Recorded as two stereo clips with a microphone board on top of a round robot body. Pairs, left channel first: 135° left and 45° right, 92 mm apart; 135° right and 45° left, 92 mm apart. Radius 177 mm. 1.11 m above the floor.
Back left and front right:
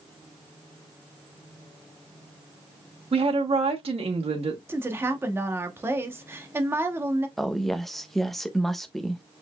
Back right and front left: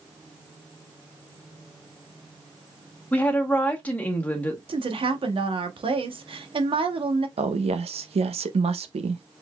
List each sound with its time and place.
3.1 s a woman speaking: 60° right, 1.2 m
4.7 s a woman speaking: 20° left, 1.2 m
7.4 s a woman speaking: 45° left, 0.7 m